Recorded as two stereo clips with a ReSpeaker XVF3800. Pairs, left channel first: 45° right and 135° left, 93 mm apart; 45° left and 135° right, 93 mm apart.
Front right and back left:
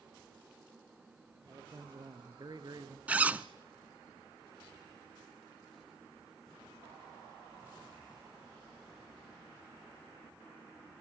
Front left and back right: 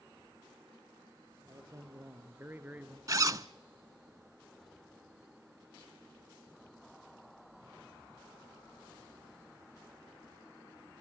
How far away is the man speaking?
About 3.5 m.